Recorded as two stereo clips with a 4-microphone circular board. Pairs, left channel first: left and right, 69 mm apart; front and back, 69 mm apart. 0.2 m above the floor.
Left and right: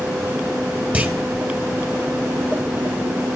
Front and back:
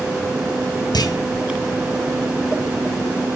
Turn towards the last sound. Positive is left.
turn(degrees=-20)